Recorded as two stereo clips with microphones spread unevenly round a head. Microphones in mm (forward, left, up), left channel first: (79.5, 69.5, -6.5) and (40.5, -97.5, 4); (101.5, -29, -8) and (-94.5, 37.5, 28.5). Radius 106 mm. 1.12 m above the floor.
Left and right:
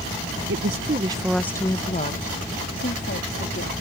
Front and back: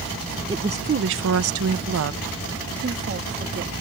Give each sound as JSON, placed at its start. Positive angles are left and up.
{"t": 0.5, "sound": "a woman speaking", "azimuth_deg": -120}